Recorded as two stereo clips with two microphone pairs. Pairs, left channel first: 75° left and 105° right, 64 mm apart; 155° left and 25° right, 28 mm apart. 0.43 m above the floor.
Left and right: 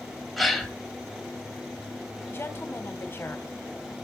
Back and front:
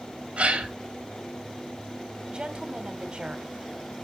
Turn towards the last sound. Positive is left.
turn(degrees=25)